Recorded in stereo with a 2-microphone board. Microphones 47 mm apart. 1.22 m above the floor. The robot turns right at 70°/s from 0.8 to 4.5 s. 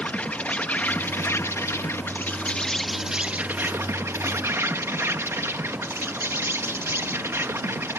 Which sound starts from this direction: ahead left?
An insect, at 0.0 s.